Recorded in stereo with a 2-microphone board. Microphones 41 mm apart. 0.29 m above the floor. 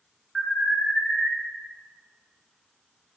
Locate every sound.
0.3 s an alarm: 15° left (ahead or behind), 1.3 m